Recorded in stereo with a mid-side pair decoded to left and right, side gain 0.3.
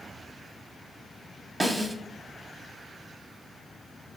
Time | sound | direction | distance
1.6 | a snare drum | 25° right | 0.5 m